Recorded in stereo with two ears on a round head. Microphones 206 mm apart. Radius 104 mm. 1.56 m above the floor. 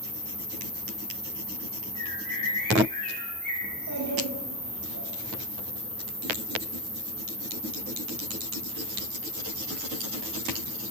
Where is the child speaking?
55° right (ahead or behind), 2.5 m.